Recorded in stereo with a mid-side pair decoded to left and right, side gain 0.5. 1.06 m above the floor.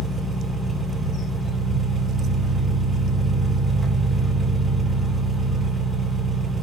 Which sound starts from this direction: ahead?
An engine running, at 0.0 s.